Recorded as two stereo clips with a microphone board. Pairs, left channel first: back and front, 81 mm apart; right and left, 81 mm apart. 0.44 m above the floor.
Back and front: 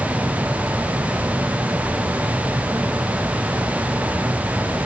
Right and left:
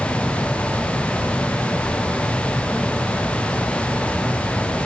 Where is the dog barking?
No dog barking in this recording.